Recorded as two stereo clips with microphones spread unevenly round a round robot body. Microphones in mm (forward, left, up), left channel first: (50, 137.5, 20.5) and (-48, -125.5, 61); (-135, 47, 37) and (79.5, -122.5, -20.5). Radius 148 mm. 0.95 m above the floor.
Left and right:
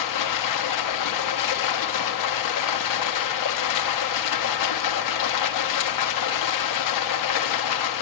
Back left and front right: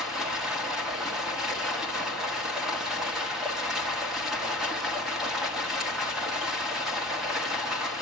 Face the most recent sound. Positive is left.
turn(degrees=50)